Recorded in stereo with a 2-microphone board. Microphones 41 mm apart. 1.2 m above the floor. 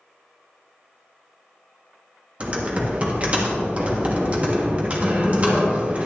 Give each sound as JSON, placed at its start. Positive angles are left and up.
{"t": 2.4, "sound": "typing on a keyboard", "side_deg": -30, "distance_m": 1.6}